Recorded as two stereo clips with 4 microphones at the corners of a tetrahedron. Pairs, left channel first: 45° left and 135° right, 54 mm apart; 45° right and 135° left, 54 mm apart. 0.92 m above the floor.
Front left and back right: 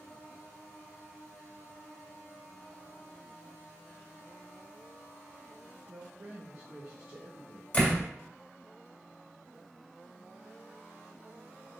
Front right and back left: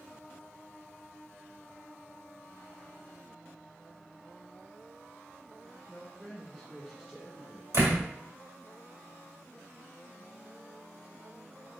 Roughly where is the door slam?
Left.